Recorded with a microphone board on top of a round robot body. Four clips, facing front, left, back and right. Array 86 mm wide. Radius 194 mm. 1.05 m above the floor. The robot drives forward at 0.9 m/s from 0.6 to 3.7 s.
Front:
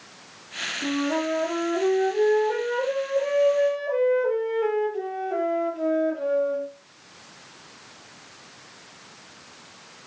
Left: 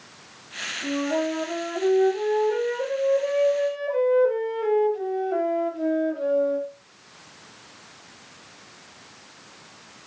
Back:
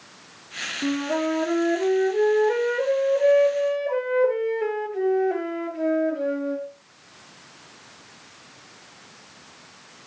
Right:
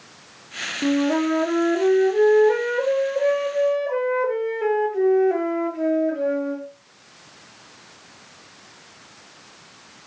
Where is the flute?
110° right, 6 m; by 6.7 s 130° right, 7 m.